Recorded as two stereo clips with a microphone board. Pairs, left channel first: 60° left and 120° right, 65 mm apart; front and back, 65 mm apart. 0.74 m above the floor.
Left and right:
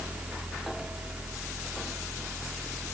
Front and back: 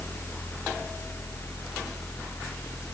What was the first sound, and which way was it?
Only background noise.